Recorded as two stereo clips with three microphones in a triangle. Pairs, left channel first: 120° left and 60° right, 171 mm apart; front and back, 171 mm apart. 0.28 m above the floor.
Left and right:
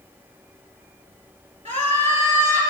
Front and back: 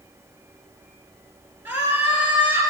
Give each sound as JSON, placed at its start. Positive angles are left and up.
{"t": 1.6, "sound": "a scream", "azimuth_deg": -110, "distance_m": 3.0}